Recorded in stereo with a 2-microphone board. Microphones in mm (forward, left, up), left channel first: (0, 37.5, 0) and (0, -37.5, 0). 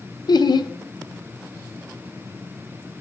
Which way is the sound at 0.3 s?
65° left (ahead or behind).